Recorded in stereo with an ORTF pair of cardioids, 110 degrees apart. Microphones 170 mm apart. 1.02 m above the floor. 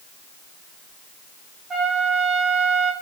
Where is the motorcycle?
I don't hear a motorcycle.